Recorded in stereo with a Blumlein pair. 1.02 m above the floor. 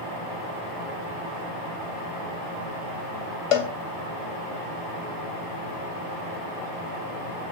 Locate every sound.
3.5 s a cowbell: 45° left, 1.0 m